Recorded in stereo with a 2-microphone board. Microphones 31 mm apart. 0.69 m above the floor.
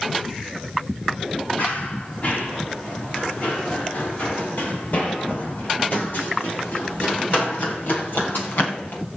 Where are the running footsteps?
55° left (ahead or behind), 9.5 m; by 9.0 s 85° left, 9 m.